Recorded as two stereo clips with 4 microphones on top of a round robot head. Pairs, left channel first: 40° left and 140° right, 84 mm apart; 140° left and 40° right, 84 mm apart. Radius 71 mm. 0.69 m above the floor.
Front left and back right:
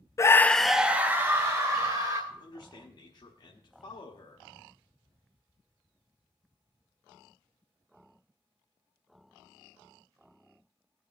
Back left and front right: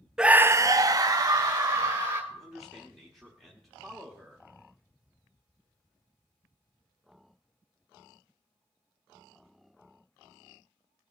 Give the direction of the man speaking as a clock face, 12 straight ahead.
10 o'clock.